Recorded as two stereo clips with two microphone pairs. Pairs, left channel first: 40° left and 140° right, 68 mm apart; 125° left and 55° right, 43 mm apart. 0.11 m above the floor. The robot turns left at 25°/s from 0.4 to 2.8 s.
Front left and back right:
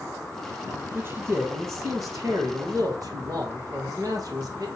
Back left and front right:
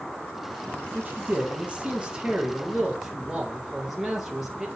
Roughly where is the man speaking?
Right.